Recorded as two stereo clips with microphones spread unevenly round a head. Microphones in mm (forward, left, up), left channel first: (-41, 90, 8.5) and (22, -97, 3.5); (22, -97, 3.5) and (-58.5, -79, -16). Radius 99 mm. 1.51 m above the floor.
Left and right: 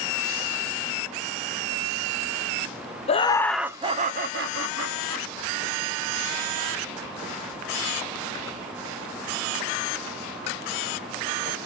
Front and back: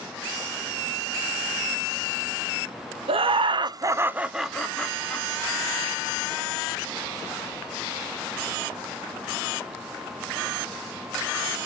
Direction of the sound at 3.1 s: 170° left.